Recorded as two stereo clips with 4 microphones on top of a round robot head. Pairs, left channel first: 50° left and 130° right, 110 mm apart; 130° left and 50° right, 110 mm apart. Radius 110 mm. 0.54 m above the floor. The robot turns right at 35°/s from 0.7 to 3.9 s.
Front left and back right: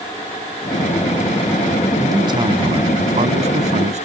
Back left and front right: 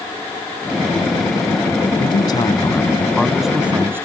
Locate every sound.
2.0 s a man speaking: 170° left; by 4.1 s 120° right